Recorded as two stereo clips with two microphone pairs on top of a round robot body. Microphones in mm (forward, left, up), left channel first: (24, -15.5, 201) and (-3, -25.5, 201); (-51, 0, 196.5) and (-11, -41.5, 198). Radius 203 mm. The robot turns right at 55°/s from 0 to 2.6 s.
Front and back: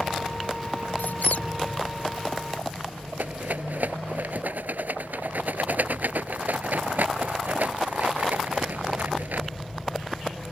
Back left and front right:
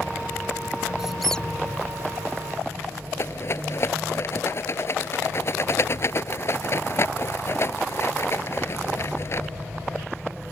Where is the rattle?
Straight behind.